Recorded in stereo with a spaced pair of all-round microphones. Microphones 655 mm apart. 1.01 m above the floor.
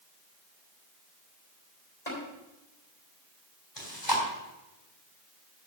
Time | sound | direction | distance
2.1 | tapping | 85° left | 4 m
3.8 | chewing | 40° left (ahead or behind) | 3 m